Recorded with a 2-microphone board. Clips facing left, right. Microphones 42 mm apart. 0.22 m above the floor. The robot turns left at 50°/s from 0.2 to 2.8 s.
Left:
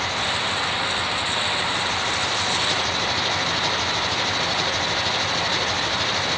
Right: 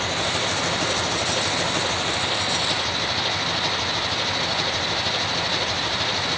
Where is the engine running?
45° right; by 6.4 s 175° right.